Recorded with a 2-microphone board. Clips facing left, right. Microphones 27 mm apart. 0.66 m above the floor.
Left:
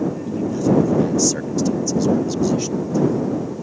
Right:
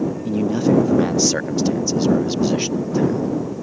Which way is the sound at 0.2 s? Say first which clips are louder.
Right 2 dB; 40° right (ahead or behind).